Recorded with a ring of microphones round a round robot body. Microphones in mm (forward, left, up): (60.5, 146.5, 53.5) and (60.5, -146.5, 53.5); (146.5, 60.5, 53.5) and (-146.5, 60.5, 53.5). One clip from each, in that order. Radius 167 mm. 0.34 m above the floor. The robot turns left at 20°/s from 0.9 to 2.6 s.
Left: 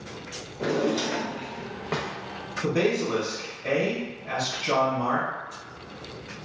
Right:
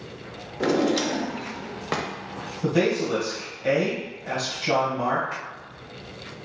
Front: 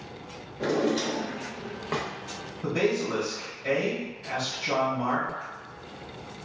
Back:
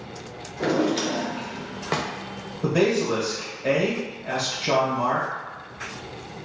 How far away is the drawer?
About 0.6 m.